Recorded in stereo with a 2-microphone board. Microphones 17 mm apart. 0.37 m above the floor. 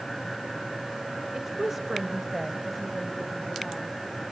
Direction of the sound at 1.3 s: 25° right (ahead or behind).